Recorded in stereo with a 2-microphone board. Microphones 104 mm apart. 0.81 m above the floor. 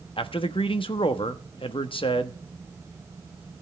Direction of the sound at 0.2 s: 55° left (ahead or behind).